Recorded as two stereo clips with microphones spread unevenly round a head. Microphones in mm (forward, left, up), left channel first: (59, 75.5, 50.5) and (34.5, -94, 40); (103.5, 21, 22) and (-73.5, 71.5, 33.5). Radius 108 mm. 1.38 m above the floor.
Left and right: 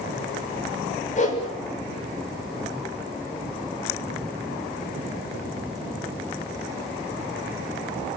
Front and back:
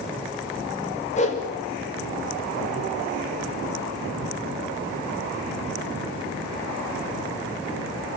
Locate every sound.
1.2 s a whoosh: 35° left, 5.5 m